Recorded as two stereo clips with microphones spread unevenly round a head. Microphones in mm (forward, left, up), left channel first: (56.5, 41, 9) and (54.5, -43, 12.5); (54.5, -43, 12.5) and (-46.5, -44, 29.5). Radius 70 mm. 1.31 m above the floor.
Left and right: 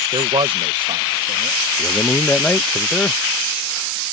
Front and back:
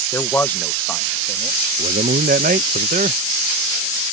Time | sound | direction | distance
0.1 | a man speaking | 60° right | ?
1.8 | a man speaking | 170° left | ?